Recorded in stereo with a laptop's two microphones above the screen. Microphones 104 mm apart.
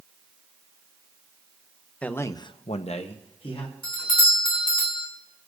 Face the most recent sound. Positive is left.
turn(degrees=55)  # may be behind; listen again after turning